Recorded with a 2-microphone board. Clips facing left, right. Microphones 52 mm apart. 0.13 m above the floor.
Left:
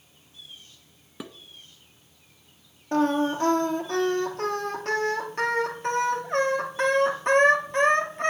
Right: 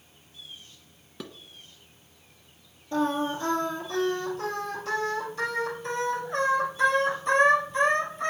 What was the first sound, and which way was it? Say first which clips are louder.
Dishes clattering: left 1 dB; 15° left (ahead or behind).